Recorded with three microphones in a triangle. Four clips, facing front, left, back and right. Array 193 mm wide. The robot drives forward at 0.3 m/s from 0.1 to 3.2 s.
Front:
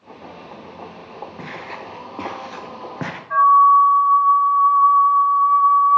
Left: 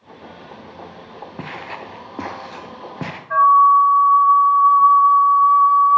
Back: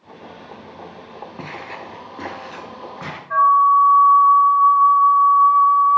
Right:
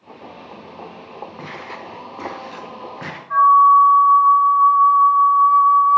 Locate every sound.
1.4 s footsteps: 95° left, 1.5 m; by 3.2 s 40° left, 1.3 m
3.3 s a flute: 90° left, 1.2 m